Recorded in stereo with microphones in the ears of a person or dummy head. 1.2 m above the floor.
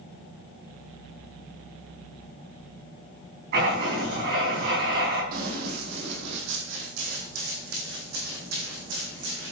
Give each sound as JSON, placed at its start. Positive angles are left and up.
{"t": 3.5, "sound": "writing", "side_deg": -55, "distance_m": 5.5}
{"t": 5.3, "sound": "running footsteps", "side_deg": -55, "distance_m": 3.0}